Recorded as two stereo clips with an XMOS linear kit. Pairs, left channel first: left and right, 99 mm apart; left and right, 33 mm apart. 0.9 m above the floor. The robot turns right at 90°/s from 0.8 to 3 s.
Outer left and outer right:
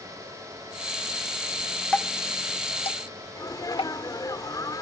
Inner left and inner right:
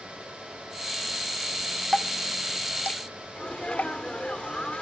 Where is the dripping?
10° left (ahead or behind); by 3.9 s 60° left (ahead or behind).